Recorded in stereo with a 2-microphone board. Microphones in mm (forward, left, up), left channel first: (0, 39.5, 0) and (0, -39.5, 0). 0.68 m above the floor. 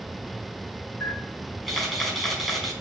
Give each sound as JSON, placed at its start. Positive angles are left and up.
{"t": 1.0, "sound": "a camera shutter", "side_deg": 5, "distance_m": 5.0}